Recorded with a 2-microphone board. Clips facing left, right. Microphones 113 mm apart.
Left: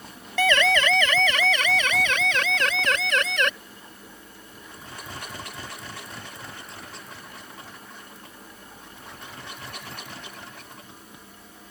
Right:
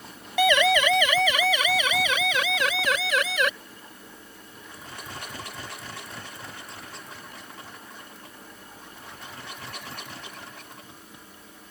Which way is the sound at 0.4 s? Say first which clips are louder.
Right 1 dB; 15° right (ahead or behind).